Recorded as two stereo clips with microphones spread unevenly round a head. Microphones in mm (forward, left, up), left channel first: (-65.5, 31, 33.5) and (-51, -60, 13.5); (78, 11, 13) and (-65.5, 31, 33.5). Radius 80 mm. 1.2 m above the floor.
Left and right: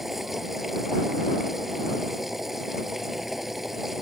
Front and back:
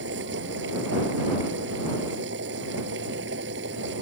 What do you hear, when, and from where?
0.0 s a machine running: 170° right